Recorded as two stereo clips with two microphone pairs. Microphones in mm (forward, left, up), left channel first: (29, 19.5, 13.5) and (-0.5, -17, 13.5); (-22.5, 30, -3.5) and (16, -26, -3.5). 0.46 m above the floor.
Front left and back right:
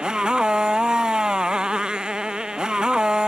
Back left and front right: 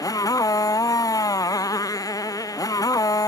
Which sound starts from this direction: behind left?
A motorcycle, at 0.0 s.